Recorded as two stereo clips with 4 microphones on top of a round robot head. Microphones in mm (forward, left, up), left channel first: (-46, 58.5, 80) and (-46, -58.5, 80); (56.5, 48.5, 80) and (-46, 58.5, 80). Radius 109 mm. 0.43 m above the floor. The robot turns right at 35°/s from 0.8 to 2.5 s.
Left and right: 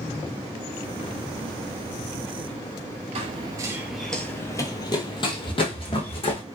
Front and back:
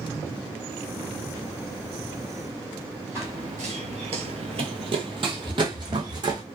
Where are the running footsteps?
115° right, 0.6 m; by 6.4 s 130° left, 1.6 m.